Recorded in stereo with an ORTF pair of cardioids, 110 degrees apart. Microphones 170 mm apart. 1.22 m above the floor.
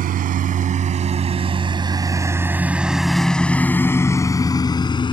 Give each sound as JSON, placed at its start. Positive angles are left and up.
{"t": 0.0, "sound": "a lawn mower", "azimuth_deg": -60}